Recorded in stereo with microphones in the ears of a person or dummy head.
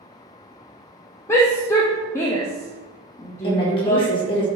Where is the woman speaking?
25° left (ahead or behind), 1.7 m.